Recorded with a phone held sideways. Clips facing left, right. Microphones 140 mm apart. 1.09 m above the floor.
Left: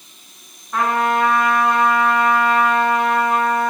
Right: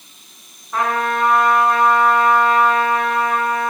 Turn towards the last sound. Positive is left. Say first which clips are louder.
# left 2 dB
turn(degrees=-5)  # may be behind; listen again after turning